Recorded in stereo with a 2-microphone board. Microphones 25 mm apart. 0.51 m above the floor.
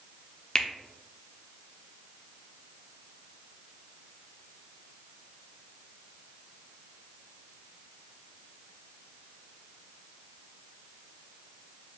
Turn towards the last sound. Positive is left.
turn(degrees=30)  # may be behind; listen again after turning